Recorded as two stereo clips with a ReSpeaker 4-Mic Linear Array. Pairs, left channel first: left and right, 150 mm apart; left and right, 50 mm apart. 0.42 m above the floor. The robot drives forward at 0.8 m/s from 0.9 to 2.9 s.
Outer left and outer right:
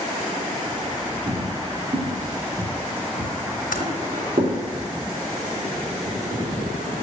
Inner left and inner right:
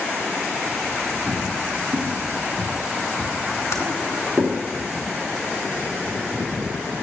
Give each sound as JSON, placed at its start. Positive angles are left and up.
{"t": 1.3, "sound": "footsteps", "side_deg": -45, "distance_m": 2.0}
{"t": 3.7, "sound": "typing on a keyboard", "side_deg": 75, "distance_m": 2.0}